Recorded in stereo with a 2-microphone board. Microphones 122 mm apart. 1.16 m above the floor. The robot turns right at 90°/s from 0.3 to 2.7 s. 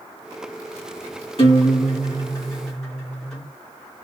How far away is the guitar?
About 2 m.